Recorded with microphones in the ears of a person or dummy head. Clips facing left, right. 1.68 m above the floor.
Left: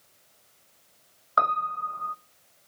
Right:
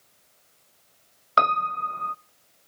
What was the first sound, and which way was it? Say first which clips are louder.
A piano: right 3 dB; 40° right (ahead or behind).